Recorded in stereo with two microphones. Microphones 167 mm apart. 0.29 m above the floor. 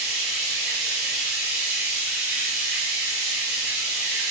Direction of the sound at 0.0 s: 5° right (ahead or behind).